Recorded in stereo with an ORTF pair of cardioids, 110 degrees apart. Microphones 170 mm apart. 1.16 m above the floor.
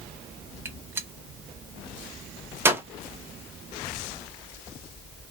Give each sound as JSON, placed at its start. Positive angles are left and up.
{"t": 0.7, "sound": "a gunshot", "azimuth_deg": -15, "distance_m": 0.6}